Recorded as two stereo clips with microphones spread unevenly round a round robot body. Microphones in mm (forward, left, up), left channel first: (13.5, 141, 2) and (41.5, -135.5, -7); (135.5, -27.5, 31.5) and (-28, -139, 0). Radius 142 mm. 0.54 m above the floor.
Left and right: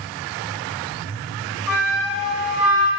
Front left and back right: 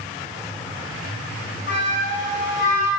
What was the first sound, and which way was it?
A flute, 5° left.